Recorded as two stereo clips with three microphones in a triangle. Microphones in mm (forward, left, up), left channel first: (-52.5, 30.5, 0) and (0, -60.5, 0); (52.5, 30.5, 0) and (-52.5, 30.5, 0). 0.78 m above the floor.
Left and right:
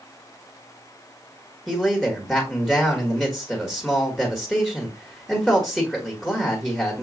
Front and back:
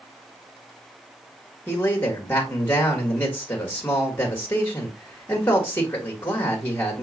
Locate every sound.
1.7 s a man speaking: 40° left, 1.1 m